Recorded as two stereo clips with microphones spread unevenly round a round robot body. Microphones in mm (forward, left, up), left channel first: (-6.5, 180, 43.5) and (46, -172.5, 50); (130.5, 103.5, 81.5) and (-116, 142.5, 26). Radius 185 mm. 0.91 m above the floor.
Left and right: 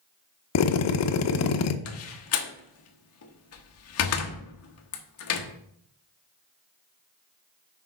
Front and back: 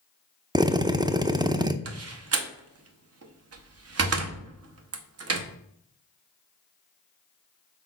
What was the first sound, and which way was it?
A drill, 115° left.